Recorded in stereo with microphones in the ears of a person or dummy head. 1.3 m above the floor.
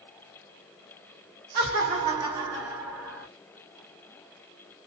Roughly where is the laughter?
Right.